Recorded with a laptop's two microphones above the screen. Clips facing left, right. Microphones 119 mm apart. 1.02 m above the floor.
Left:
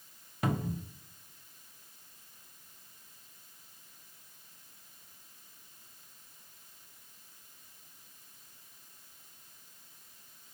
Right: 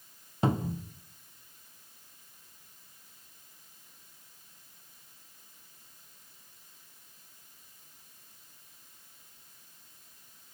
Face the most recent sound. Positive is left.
turn(degrees=-25)  # may be behind; listen again after turning